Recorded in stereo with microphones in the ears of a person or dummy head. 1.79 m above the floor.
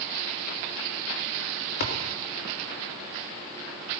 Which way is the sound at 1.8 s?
55° left (ahead or behind).